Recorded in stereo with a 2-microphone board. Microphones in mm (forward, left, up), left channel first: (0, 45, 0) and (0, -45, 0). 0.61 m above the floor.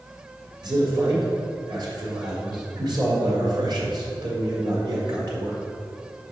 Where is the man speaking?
50° right (ahead or behind), 1.6 m.